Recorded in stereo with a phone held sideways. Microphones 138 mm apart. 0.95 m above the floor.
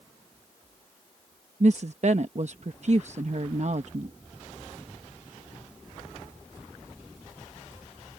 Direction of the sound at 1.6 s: 55° right (ahead or behind).